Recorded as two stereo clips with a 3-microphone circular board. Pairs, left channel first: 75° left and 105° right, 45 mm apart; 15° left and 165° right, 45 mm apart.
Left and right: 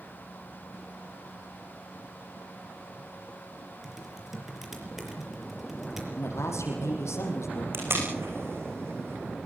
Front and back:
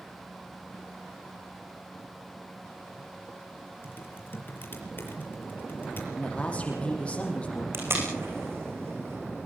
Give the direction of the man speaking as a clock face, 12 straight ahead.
9 o'clock.